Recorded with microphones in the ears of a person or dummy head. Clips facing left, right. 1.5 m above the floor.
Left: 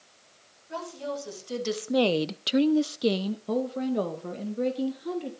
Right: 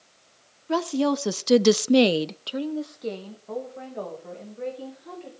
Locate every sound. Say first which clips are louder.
0.7 s a woman speaking: right 11 dB; 75° right (ahead or behind), 1.6 m; by 5.3 s 55° left (ahead or behind), 3.5 m